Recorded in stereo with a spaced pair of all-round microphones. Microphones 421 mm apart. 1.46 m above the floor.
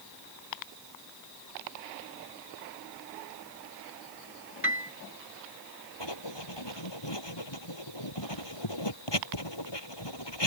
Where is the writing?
80° left.